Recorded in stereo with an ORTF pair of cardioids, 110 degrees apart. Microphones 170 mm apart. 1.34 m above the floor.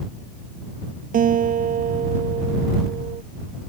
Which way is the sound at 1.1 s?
55° right.